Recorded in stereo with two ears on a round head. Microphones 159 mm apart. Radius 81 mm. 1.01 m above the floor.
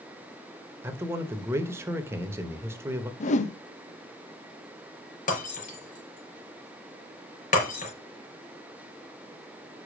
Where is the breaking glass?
50° left (ahead or behind), 5 m.